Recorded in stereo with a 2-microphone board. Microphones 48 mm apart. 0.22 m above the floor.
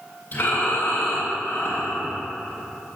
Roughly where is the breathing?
Left.